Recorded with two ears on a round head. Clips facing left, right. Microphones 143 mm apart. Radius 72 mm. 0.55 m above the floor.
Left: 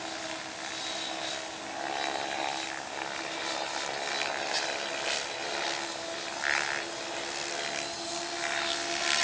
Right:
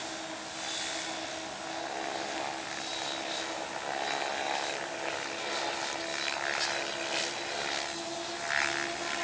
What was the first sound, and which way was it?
Only background noise.